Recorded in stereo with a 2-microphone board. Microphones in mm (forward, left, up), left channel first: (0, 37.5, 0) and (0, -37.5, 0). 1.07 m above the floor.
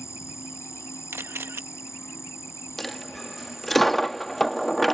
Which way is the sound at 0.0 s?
40° left (ahead or behind).